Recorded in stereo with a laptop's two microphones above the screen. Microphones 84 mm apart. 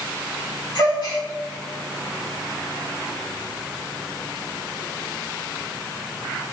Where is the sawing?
I don't hear sawing.